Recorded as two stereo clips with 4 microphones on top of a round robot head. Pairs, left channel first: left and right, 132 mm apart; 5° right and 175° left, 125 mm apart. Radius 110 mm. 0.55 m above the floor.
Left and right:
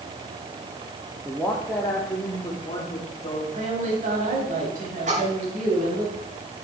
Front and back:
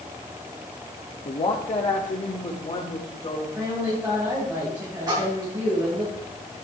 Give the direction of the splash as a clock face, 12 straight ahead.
4 o'clock.